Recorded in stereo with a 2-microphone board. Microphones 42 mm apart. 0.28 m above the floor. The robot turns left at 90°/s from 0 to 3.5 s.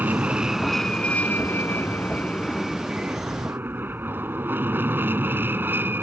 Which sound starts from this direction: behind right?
An aircraft, at 0.0 s.